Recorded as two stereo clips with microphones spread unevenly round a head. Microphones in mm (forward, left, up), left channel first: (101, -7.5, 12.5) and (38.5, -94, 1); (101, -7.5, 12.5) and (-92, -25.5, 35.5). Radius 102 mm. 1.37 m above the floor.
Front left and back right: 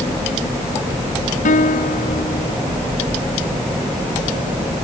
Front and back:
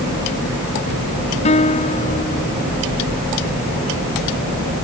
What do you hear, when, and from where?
1.4 s a guitar: 70° left